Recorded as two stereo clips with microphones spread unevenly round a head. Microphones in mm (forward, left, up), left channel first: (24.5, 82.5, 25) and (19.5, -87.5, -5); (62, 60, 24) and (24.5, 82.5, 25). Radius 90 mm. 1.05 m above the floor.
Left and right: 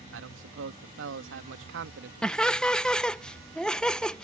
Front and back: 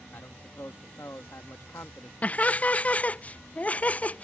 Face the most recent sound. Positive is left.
turn(degrees=-10)